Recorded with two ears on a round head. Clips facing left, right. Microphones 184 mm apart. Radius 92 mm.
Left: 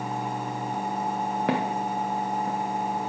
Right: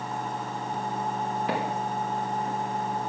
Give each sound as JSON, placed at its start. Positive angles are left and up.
{"t": 1.5, "sound": "footsteps", "side_deg": 50, "distance_m": 2.5}